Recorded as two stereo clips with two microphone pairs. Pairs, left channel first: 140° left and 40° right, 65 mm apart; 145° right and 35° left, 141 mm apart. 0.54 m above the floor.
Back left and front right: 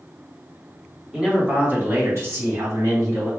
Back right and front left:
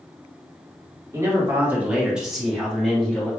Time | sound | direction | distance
1.1 | a man speaking | 15° left | 1.1 m